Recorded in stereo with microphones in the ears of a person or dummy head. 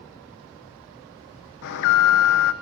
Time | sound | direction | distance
1.6 | an alarm | 60° left (ahead or behind) | 1.4 m